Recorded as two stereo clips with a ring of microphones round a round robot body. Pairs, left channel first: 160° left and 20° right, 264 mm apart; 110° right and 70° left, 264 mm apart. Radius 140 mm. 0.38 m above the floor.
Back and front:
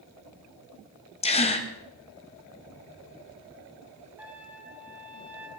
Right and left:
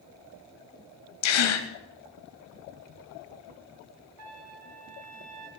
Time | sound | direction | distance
1.2 | a gasp | 135° right | 1.3 m
4.2 | a trumpet | 60° left | 2.5 m